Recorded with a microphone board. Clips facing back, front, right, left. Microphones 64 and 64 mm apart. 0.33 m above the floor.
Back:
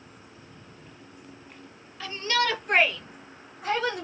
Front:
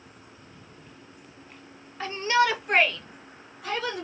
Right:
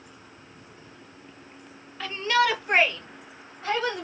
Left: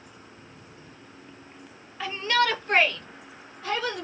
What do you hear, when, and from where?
2.0 s a shout: 15° left, 1.0 m; by 4.0 s 145° right, 1.6 m